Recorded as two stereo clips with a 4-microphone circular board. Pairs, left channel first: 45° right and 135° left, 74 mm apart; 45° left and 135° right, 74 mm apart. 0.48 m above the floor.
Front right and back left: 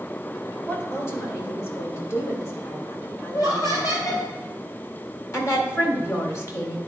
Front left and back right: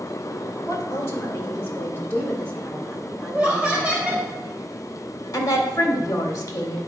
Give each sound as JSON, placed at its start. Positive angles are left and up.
{"t": 0.7, "sound": "a woman speaking", "azimuth_deg": 0, "distance_m": 2.5}
{"t": 3.3, "sound": "laughter", "azimuth_deg": -65, "distance_m": 3.0}
{"t": 5.3, "sound": "a woman speaking", "azimuth_deg": 5, "distance_m": 2.0}